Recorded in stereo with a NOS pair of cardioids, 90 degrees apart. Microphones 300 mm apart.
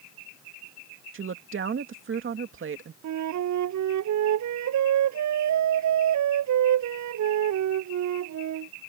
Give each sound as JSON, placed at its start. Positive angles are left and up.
{"t": 1.1, "sound": "a woman speaking", "azimuth_deg": -40}
{"t": 3.0, "sound": "a flute", "azimuth_deg": -70}